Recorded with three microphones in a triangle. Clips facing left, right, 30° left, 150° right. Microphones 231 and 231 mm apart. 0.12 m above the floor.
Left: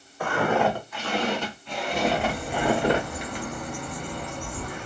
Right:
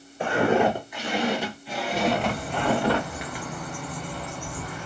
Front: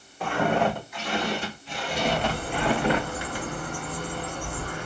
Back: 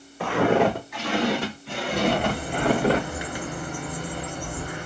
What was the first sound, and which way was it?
Footsteps, 160° right.